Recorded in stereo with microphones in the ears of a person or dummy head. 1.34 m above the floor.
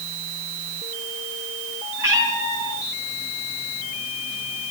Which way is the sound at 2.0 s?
20° right (ahead or behind).